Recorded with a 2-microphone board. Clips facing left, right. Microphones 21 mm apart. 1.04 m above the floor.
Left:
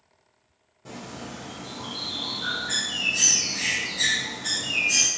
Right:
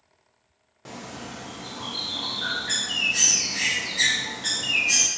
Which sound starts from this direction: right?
A bird, at 0.8 s.